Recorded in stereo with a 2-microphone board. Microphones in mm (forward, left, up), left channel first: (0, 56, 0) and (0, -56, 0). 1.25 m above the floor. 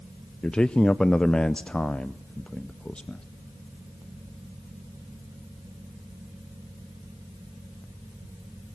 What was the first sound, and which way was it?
A man speaking, 10° left (ahead or behind).